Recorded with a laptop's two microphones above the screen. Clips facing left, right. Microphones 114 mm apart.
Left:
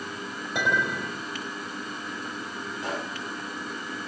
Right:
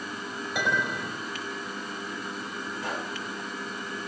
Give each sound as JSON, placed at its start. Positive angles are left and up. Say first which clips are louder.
{"t": 0.6, "sound": "a clink", "louder": "left 2 dB", "side_deg": 30, "distance_m": 3.5}
{"t": 2.8, "sound": "a pop", "louder": "left 2 dB", "side_deg": 30, "distance_m": 4.5}